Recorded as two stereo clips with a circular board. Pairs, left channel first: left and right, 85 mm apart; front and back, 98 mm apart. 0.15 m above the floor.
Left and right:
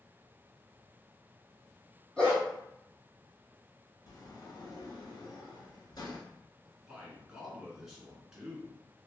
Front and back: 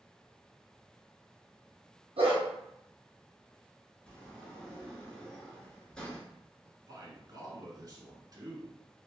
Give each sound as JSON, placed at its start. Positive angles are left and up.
{"t": 2.2, "sound": "a dog barking", "azimuth_deg": 170, "distance_m": 1.8}
{"t": 4.1, "sound": "a sliding door", "azimuth_deg": 80, "distance_m": 1.1}
{"t": 6.7, "sound": "a man speaking", "azimuth_deg": -170, "distance_m": 1.3}